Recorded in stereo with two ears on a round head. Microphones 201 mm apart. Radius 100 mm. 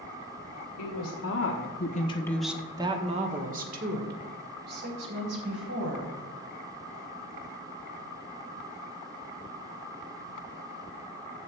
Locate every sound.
0.8 s a woman speaking: 80° left, 1.8 m; by 6.1 s 55° right (ahead or behind), 4.5 m